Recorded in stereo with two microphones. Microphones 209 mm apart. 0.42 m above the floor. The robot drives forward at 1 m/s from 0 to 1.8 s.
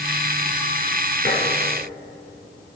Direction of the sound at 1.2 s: 50° left (ahead or behind).